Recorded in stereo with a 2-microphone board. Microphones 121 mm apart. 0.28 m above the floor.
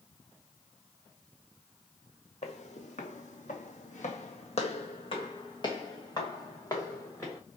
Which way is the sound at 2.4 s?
65° left (ahead or behind).